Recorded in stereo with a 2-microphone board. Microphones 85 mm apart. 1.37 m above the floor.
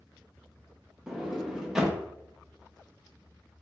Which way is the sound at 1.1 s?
5° right (ahead or behind).